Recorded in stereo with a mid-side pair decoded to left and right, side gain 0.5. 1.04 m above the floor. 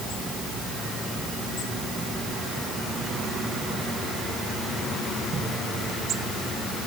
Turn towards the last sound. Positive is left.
No sound to turn to.